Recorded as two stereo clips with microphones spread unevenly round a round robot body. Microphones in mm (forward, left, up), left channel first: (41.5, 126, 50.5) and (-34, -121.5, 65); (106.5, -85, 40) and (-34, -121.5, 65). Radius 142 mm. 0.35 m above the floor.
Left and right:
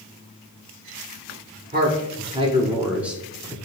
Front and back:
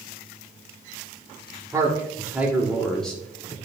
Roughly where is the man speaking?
Right.